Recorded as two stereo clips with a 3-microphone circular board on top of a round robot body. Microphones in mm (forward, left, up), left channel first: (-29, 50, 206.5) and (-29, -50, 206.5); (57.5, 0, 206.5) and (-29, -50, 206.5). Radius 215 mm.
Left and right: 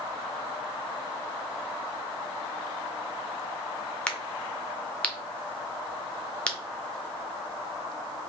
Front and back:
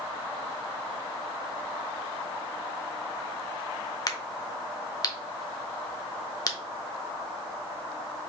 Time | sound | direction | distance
4.1 | a crack | 15° left | 1.0 m